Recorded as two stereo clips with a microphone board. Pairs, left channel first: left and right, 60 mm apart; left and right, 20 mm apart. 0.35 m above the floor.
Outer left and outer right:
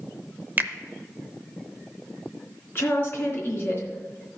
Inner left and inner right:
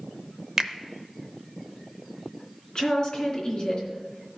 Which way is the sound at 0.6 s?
30° right (ahead or behind).